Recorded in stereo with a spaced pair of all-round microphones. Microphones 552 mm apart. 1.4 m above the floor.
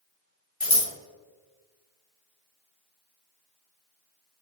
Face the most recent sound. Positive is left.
turn(degrees=85)